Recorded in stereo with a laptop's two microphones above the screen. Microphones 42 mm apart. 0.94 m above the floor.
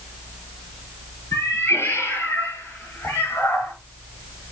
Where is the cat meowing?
80° left, 5 m.